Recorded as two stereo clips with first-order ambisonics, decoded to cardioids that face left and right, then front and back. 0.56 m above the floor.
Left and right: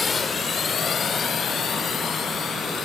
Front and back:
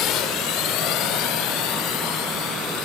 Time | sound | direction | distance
0.0 | a drone | 20° left | ?